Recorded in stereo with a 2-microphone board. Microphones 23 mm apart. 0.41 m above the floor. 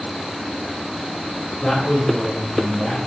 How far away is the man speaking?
About 3.5 m.